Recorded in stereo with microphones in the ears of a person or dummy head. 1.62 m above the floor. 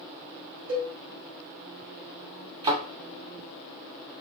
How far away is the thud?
About 1.7 m.